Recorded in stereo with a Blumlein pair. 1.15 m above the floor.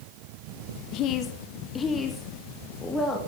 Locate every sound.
0.9 s a woman speaking: 40° left, 1.0 m; by 3.2 s 5° left, 2 m